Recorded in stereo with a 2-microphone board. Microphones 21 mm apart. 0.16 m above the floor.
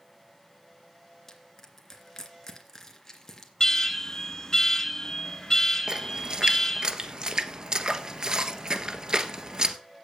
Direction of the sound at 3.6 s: 25° left (ahead or behind).